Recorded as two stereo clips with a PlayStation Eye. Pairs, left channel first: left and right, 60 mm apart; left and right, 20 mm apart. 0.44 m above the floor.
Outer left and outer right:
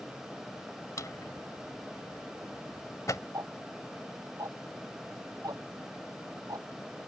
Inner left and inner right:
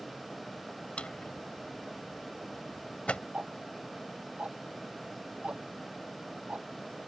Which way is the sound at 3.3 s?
75° right (ahead or behind).